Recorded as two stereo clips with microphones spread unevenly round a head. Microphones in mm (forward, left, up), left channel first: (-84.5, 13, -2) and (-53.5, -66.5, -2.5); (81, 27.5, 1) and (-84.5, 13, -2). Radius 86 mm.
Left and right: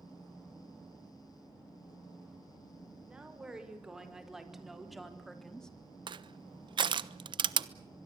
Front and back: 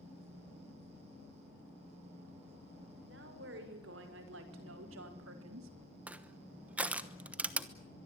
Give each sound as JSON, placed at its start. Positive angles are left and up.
{"t": 3.1, "sound": "a woman speaking", "azimuth_deg": -145, "distance_m": 6.5}
{"t": 6.1, "sound": "crushing", "azimuth_deg": -90, "distance_m": 1.0}